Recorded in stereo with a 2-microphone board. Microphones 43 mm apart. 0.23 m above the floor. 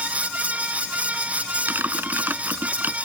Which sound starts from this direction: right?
Typing on a keyboard, at 1.7 s.